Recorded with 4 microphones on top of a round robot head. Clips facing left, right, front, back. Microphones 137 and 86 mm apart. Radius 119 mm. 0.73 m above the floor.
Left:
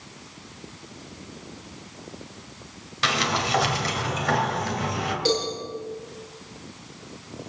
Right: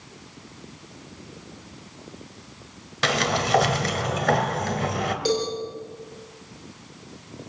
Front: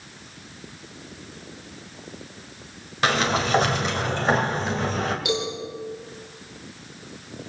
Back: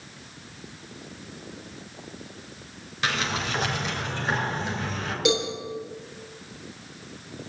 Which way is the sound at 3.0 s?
55° right.